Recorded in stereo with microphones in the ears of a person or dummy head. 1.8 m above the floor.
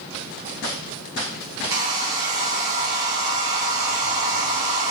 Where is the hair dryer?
20° right (ahead or behind), 1.0 m.